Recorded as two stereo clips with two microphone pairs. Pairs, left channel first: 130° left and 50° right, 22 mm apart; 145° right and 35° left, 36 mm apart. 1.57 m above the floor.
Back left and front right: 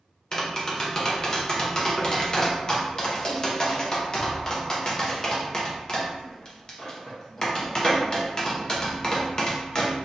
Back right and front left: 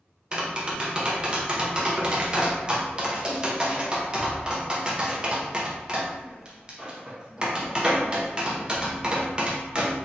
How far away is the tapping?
About 0.6 m.